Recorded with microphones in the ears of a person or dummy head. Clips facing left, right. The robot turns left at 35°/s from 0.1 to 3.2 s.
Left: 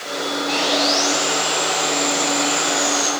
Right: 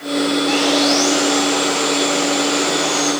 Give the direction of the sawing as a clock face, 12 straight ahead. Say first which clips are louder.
Right 5 dB; 3 o'clock.